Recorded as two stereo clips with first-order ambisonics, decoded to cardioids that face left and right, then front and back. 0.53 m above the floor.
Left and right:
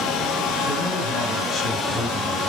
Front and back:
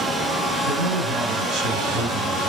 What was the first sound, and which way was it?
A man speaking, 165° left.